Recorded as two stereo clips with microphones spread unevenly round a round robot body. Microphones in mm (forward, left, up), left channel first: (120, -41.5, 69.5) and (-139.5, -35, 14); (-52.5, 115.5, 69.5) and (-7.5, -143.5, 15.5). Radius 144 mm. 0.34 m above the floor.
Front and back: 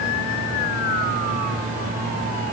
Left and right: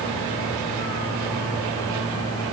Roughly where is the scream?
I don't hear a scream.